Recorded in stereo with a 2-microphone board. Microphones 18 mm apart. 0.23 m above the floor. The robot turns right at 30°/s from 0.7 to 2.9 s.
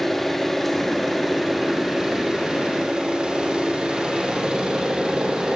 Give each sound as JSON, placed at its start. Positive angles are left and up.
{"t": 0.0, "sound": "an engine running", "azimuth_deg": 165, "distance_m": 6.5}